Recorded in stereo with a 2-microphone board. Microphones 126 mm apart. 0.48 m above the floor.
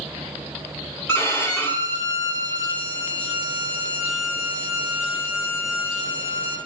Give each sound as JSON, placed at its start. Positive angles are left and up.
{"t": 1.1, "sound": "a violin", "side_deg": 20, "distance_m": 1.2}